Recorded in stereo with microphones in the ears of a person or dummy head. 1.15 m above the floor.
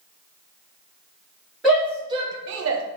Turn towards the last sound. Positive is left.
turn(degrees=-70)  # may be behind; listen again after turning